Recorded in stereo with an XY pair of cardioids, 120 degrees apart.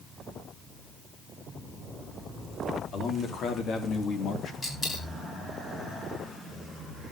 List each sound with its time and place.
2.9 s a man speaking: 55° left, 4.5 m; by 4.5 s 50° left, 2.5 m
4.6 s a dropped coin: 25° left, 9 m